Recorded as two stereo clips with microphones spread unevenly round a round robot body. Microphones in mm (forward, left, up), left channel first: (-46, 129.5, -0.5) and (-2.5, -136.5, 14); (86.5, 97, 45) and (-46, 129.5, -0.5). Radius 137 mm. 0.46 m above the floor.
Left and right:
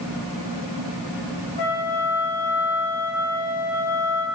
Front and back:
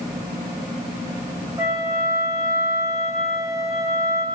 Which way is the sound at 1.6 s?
100° left.